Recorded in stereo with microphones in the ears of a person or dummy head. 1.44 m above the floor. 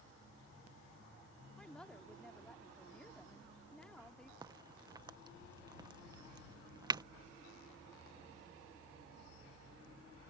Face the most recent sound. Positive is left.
turn(degrees=-25)  # may be behind; listen again after turning